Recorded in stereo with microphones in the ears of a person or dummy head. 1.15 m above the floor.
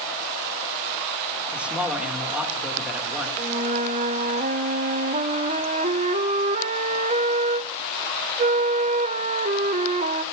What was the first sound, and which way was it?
A man speaking, 5° right (ahead or behind).